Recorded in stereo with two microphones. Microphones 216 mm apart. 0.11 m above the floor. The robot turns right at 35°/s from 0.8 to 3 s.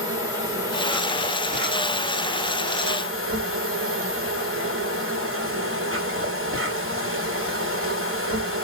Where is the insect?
165° right, 2.0 m; by 8.7 s 90° right, 2.0 m.